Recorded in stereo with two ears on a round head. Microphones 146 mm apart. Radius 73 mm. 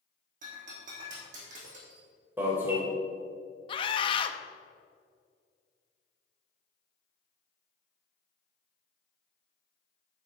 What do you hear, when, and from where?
0.4 s breaking glass: 50° right (ahead or behind), 3.5 m
2.4 s an alarm: 15° right (ahead or behind), 2 m
3.7 s a scream: 30° left (ahead or behind), 0.8 m